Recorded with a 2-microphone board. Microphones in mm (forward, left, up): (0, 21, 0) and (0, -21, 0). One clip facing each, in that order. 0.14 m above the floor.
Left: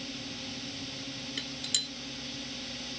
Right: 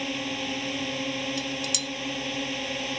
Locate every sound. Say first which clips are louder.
0.0 s a drone: right 10 dB; 60° right (ahead or behind)
1.4 s dishes clattering: right 6 dB; 25° left (ahead or behind)